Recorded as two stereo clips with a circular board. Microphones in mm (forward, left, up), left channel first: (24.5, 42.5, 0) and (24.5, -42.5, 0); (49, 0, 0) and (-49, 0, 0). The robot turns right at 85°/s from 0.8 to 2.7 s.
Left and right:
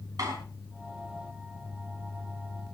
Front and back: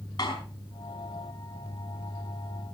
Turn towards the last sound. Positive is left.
turn(degrees=115)